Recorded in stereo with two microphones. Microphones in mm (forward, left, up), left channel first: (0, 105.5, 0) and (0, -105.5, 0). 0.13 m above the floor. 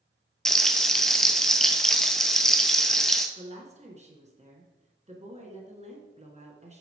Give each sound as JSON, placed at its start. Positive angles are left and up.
{"t": 0.5, "sound": "frying", "side_deg": 0, "distance_m": 0.6}
{"t": 3.4, "sound": "a woman speaking", "side_deg": -35, "distance_m": 1.2}